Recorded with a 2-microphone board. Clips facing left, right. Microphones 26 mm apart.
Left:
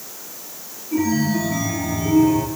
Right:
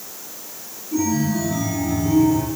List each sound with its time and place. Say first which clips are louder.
0.9 s a chime: left 1 dB; 45° left (ahead or behind), 2 m